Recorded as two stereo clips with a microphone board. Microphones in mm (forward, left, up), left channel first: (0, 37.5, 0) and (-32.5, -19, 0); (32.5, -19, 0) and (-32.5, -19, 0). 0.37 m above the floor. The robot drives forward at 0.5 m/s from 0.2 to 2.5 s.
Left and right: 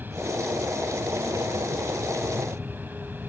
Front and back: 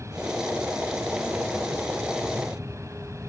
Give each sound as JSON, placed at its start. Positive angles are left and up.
{"t": 0.0, "sound": "an aircraft", "azimuth_deg": -170}